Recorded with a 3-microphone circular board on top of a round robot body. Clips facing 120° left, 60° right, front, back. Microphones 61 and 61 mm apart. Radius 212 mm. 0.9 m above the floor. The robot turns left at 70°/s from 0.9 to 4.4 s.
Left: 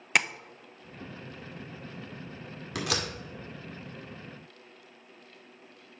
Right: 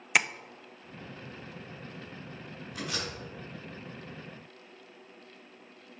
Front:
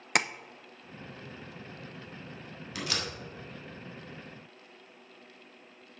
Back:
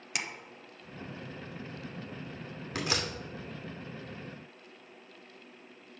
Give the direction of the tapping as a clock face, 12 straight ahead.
11 o'clock.